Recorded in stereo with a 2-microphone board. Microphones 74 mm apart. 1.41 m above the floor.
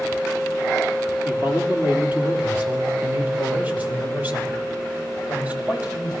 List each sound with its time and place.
1.2 s a man speaking: 20° right (ahead or behind), 3.5 m; by 6.1 s 25° right (ahead or behind), 7 m